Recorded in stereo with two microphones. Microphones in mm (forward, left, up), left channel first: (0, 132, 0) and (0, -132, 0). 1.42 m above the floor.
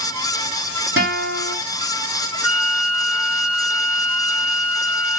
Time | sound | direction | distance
1.0 | a guitar | 55° right (ahead or behind) | 2.5 m
2.4 | a flute | 70° right (ahead or behind) | 3 m